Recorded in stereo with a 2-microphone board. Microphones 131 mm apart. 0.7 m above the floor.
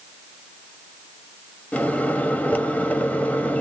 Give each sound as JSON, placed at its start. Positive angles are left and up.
{"t": 1.7, "sound": "a microwave", "side_deg": 10, "distance_m": 0.7}